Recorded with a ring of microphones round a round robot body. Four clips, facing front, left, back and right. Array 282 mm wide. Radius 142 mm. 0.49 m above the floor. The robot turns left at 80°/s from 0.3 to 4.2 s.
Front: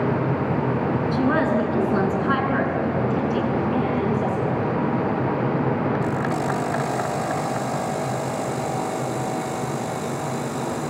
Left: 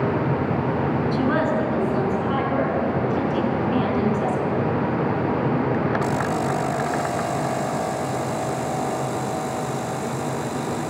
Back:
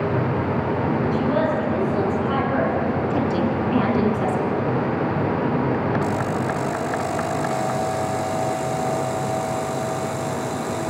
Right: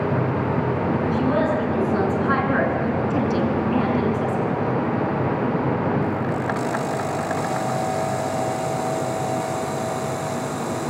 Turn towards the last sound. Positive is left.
turn(degrees=160)